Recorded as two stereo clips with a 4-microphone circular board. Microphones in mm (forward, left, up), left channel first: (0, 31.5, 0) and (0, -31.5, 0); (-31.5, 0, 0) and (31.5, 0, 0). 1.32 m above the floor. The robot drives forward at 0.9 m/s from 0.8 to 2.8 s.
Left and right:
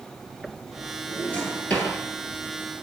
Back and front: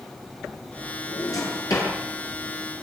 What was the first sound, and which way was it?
A drawer, 160° left.